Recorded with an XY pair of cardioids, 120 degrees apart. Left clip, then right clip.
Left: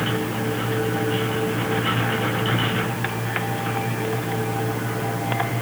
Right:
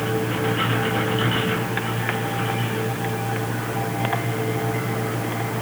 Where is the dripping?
I don't hear dripping.